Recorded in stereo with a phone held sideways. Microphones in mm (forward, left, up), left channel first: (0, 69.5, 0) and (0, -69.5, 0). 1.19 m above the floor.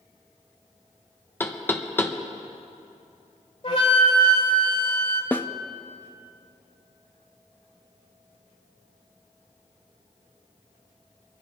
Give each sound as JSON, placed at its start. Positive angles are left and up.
{"t": 1.4, "sound": "knocking", "side_deg": 15, "distance_m": 0.8}
{"t": 3.6, "sound": "a flute", "side_deg": 50, "distance_m": 2.0}
{"t": 5.3, "sound": "a snare drum", "side_deg": 10, "distance_m": 0.5}